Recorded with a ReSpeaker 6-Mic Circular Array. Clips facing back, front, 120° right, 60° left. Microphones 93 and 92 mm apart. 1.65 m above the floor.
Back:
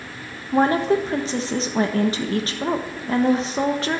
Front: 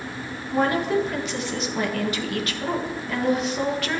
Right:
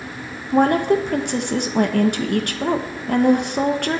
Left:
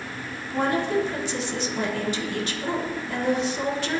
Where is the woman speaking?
125° right, 1.4 m.